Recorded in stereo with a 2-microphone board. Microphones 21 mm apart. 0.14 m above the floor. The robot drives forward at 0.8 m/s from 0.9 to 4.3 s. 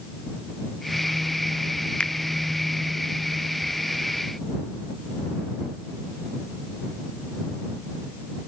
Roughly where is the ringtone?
No ringtone in this recording.